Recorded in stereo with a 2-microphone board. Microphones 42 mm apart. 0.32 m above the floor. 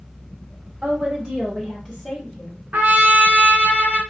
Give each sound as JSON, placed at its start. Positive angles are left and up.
{"t": 0.8, "sound": "a woman speaking", "side_deg": -35, "distance_m": 1.0}
{"t": 2.7, "sound": "a trumpet", "side_deg": -45, "distance_m": 0.6}